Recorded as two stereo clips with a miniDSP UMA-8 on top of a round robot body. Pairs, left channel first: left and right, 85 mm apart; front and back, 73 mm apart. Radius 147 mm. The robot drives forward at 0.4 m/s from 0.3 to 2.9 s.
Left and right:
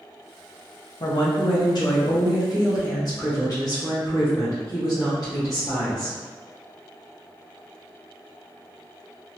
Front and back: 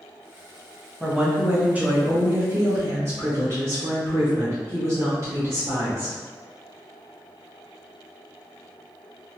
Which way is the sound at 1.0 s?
90° left.